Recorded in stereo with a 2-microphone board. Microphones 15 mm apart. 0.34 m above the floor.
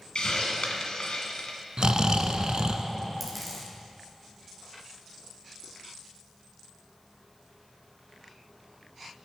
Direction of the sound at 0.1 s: 75° left (ahead or behind).